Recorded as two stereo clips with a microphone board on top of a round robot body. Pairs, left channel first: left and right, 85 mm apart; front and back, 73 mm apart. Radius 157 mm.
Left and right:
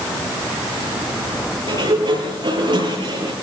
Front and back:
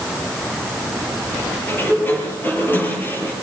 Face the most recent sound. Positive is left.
turn(degrees=-60)